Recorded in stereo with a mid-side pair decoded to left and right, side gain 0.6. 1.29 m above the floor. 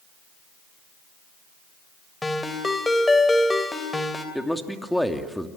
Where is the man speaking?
5° left, 2.5 m.